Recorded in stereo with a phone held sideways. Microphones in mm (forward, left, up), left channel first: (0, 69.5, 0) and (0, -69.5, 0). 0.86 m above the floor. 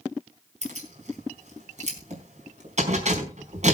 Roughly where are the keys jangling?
Right.